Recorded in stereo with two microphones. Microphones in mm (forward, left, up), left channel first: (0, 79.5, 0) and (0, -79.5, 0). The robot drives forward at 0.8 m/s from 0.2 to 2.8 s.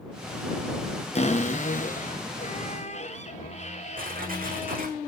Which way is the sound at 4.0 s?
60° right (ahead or behind).